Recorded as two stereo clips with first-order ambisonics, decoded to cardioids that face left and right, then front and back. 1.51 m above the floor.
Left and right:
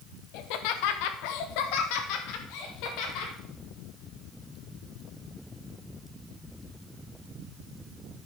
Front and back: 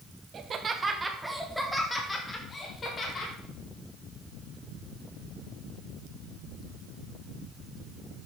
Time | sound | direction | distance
0.3 | laughter | 120° left | 1.1 m